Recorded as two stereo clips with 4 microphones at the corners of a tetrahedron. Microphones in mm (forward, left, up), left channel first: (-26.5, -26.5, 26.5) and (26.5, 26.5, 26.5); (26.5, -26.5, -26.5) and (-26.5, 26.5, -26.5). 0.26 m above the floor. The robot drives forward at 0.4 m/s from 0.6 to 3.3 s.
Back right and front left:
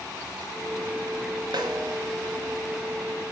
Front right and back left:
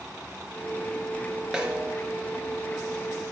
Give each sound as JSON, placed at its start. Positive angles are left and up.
{"t": 1.5, "sound": "a snare drum", "azimuth_deg": 55, "distance_m": 0.9}